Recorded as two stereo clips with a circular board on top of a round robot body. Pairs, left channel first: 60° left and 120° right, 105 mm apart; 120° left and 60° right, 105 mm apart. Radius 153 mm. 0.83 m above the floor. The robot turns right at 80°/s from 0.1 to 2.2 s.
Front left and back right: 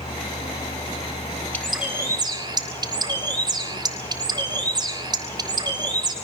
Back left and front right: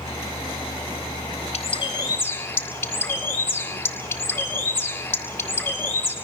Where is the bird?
135° left, 6 m; by 6.1 s 170° right, 6 m.